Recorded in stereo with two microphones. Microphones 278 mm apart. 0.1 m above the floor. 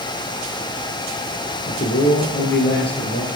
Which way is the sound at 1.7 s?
40° left (ahead or behind).